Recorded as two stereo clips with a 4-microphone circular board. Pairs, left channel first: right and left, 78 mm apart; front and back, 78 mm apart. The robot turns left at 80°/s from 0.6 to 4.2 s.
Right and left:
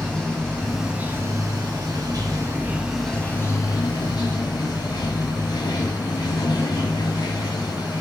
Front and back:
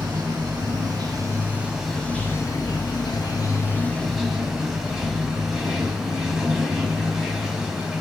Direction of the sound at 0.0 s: 165° right.